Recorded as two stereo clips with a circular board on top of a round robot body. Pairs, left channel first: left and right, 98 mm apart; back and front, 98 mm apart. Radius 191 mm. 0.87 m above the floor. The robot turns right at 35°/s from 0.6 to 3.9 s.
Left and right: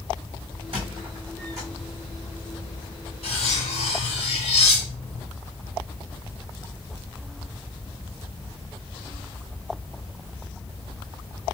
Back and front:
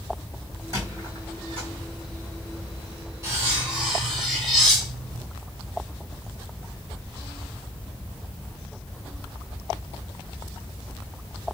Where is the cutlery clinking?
60° left, 1.1 m; by 5.2 s 85° left, 1.1 m.